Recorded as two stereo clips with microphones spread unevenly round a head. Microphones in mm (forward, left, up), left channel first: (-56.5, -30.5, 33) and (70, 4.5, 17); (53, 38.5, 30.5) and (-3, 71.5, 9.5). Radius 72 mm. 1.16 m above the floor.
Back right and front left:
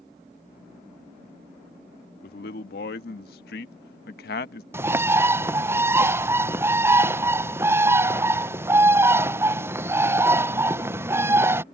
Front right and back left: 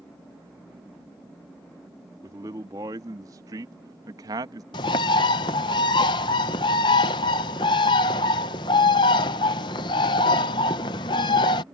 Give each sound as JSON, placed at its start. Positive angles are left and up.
{"t": 2.2, "sound": "a man speaking", "azimuth_deg": -155}
{"t": 4.7, "sound": "a bird", "azimuth_deg": -50}